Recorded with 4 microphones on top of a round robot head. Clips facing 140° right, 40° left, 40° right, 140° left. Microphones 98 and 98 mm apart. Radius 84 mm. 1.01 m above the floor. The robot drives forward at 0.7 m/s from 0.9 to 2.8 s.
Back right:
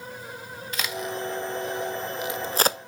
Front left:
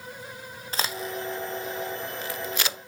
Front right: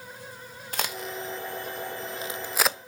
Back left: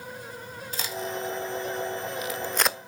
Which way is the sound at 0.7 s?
15° right.